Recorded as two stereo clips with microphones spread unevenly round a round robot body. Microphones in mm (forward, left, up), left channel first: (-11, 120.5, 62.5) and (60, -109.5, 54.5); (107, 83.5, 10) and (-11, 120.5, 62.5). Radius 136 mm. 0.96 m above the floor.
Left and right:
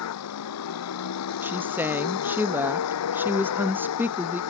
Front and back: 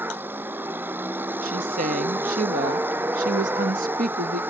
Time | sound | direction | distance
0.0 | a vehicle | 90° left | ?
1.4 | a woman speaking | 155° right | ?